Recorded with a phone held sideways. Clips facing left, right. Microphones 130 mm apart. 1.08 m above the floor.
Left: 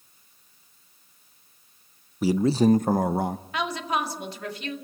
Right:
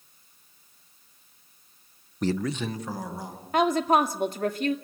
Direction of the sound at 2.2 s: 5° left (ahead or behind).